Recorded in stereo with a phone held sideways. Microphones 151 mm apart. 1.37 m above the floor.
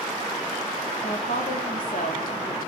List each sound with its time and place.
1.0 s a woman speaking: 75° left (ahead or behind), 3.5 m